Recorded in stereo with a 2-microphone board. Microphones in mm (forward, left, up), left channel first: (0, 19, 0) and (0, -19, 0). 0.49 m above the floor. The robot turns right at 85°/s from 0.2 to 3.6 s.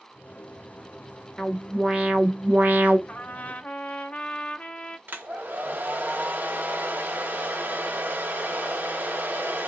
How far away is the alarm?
About 1.4 m.